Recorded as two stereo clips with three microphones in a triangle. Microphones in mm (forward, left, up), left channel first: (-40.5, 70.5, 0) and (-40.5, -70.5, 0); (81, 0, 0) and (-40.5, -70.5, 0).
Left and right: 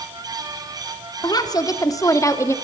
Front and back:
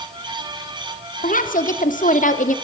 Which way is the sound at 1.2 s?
30° left.